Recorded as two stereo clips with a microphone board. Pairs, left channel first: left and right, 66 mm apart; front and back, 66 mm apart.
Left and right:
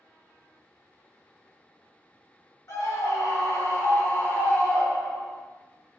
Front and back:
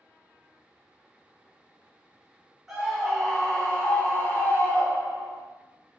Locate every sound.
2.7 s a scream: 95° left, 1.3 m; by 5.4 s 5° left, 1.1 m